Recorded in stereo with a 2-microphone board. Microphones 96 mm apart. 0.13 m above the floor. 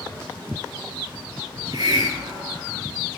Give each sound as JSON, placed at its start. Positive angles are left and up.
{"t": 1.5, "sound": "a hiss", "side_deg": -55, "distance_m": 0.7}